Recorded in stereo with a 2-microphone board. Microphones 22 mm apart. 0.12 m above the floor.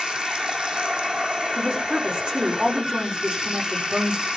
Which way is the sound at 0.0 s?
65° right (ahead or behind).